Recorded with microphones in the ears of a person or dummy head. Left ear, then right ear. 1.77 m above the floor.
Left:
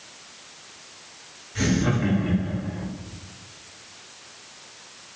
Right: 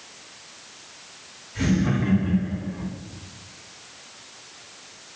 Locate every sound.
1.6 s laughter: 30° left (ahead or behind), 4.5 m; by 2.9 s 20° left (ahead or behind), 4 m